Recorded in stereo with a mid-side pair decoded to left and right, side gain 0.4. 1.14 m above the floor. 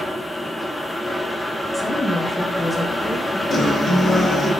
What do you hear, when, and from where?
0.0 s a fan: 5° left, 0.8 m
1.7 s a woman speaking: 5° left, 1.3 m
3.5 s a guitar: 50° left, 1.8 m